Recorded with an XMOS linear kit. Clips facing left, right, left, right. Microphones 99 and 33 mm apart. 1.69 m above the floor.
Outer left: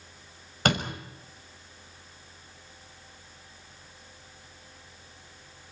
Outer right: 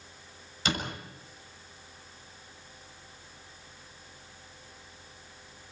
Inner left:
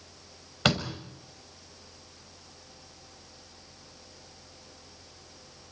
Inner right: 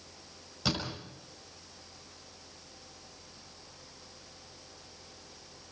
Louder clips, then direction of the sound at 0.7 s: Outer left 6 dB, inner left 7 dB; 60° left (ahead or behind).